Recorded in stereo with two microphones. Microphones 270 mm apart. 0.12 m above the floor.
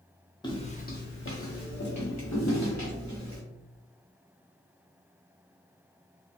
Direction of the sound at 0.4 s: 15° left (ahead or behind).